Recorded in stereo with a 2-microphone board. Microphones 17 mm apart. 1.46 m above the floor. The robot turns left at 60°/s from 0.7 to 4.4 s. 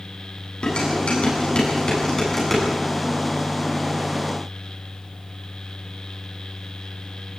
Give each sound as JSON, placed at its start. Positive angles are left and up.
{"t": 0.6, "sound": "dishes clattering", "side_deg": 65, "distance_m": 9.0}